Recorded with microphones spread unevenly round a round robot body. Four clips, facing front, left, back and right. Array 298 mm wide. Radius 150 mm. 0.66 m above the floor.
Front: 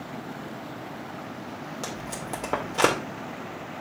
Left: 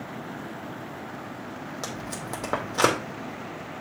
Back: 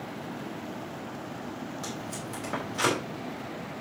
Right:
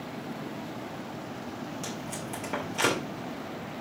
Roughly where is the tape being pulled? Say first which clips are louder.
Left 2 dB, front 2 dB; ahead left.